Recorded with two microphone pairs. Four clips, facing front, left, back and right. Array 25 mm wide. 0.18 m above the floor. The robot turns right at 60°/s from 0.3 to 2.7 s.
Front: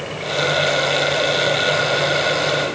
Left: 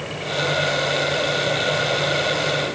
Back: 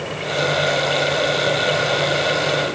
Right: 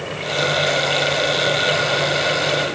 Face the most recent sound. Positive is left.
No sound to turn to.